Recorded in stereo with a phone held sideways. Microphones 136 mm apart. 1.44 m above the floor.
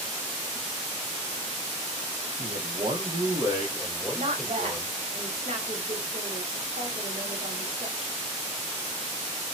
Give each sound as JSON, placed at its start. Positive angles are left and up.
{"t": 2.4, "sound": "a man speaking", "side_deg": -75, "distance_m": 0.8}
{"t": 4.2, "sound": "a woman speaking", "side_deg": -55, "distance_m": 1.0}